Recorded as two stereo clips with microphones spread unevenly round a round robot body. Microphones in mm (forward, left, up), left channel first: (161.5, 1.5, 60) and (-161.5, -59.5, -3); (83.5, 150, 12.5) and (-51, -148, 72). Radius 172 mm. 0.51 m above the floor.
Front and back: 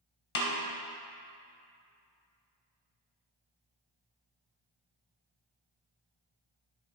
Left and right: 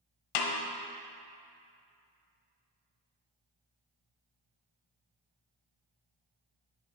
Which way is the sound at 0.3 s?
70° left.